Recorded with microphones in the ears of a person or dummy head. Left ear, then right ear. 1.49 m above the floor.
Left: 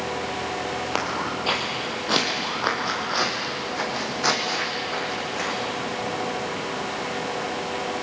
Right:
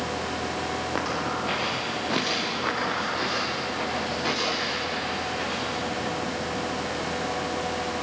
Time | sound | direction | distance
0.9 | footsteps | 55° left (ahead or behind) | 3 m